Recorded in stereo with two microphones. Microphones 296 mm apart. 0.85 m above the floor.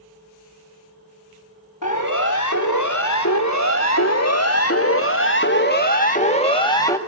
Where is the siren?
70° left (ahead or behind), 4 m; by 7.0 s 10° left (ahead or behind), 2.5 m.